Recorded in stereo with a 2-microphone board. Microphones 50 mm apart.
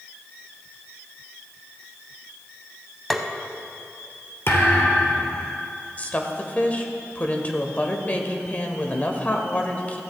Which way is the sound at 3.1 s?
Centre (ahead or behind).